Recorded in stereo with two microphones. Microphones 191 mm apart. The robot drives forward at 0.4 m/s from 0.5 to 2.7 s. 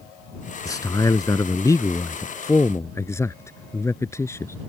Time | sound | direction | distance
0.7 | a man speaking | 20° left (ahead or behind) | ?